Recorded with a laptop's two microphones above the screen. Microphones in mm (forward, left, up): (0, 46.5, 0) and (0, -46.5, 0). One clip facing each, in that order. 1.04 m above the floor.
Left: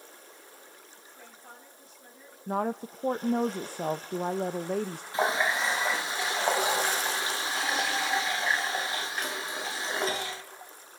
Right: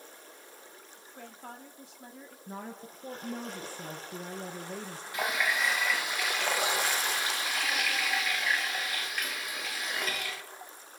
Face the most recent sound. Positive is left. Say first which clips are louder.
# left 4 dB
turn(degrees=30)  # may be behind; listen again after turning